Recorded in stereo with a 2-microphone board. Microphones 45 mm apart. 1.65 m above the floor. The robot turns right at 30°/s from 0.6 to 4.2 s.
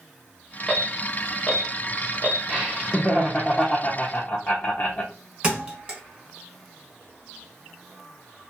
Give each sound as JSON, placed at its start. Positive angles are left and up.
{"t": 0.7, "sound": "an alarm", "side_deg": 15, "distance_m": 1.3}
{"t": 2.5, "sound": "laughter", "azimuth_deg": 0, "distance_m": 0.6}
{"t": 5.4, "sound": "a thud", "side_deg": -20, "distance_m": 1.0}